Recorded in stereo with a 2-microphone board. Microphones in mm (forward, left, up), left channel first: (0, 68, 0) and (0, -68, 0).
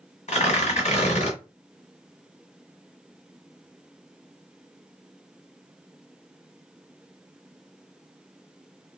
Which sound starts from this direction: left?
Tearing paper, at 0.3 s.